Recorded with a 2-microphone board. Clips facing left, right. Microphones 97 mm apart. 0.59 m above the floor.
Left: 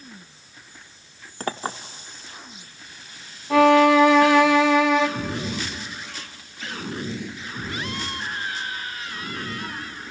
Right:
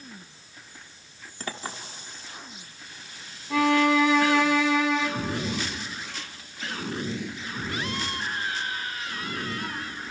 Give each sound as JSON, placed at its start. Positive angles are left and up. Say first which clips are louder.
{"t": 1.4, "sound": "a clink", "louder": "left 7 dB", "side_deg": 45, "distance_m": 0.8}
{"t": 3.5, "sound": "a violin", "louder": "left 7 dB", "side_deg": 60, "distance_m": 0.8}